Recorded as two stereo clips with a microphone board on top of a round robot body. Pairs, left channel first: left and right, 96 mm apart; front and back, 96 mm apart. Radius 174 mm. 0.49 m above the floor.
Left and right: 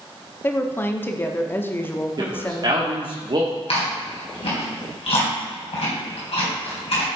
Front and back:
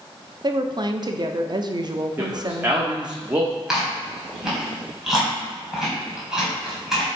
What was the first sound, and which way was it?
A woman speaking, 150° left.